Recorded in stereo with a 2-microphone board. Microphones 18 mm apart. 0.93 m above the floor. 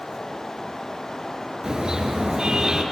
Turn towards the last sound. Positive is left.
turn(degrees=-45)  # may be behind; listen again after turning